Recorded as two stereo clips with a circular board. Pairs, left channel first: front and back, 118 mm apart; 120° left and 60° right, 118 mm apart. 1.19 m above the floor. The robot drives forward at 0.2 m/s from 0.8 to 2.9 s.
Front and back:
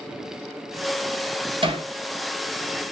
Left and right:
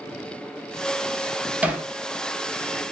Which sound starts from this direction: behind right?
Hammering, at 1.6 s.